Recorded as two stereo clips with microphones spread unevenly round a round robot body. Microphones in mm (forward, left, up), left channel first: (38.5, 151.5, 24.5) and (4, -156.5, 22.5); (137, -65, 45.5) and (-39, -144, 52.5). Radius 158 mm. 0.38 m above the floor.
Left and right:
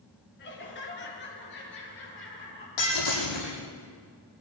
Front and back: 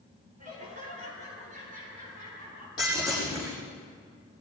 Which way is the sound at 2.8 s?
100° left.